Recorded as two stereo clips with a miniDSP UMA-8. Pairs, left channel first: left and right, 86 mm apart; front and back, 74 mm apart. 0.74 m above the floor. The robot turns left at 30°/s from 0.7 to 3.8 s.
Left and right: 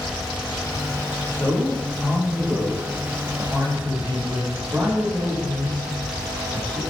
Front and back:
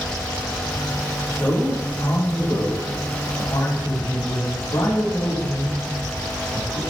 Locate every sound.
1.3 s a man speaking: 55° left, 3 m; by 6.8 s 20° right, 3 m